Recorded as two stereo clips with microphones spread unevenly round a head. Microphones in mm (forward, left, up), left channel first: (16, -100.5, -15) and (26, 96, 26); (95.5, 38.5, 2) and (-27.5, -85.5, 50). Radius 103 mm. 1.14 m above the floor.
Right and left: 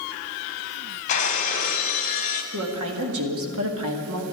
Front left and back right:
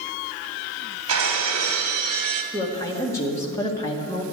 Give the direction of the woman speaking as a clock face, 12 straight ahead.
8 o'clock.